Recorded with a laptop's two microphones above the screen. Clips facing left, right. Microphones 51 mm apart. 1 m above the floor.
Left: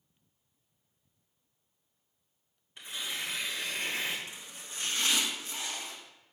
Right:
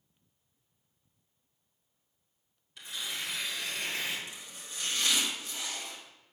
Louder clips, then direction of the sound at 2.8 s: Left 1 dB; 30° left (ahead or behind).